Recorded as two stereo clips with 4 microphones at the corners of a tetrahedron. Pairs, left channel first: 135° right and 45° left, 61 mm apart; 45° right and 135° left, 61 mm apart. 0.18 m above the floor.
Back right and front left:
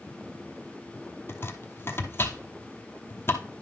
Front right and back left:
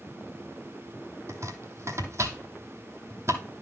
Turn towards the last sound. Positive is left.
turn(degrees=175)